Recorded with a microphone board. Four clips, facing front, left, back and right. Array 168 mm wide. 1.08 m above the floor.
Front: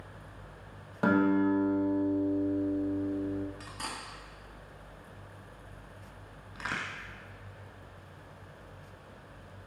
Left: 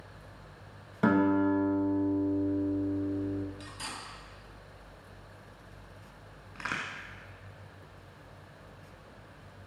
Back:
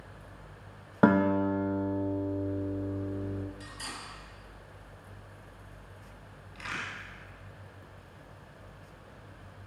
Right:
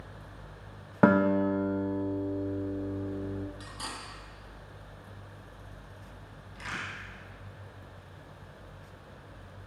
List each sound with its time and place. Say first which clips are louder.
1.0 s a guitar: right 2 dB, back 1 dB; 130° right, 1.1 m
3.6 s cutlery clinking: right 1 dB, front 2 dB; 30° right, 1.2 m
6.5 s a crack: left 2 dB, front 2 dB; 45° left, 1.4 m